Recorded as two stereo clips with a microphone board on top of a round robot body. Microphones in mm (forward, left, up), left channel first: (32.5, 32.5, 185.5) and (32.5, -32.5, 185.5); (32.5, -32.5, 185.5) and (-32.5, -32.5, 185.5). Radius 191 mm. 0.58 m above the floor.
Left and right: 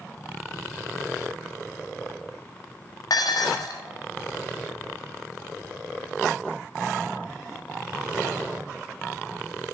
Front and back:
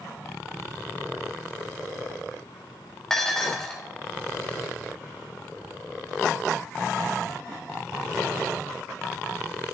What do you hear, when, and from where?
3.1 s dishes clattering: 85° left, 0.8 m